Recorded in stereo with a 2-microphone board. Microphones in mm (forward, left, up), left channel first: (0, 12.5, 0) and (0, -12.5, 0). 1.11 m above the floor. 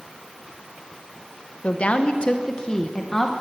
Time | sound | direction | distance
1.6 | a woman speaking | 55° left (ahead or behind) | 1.0 m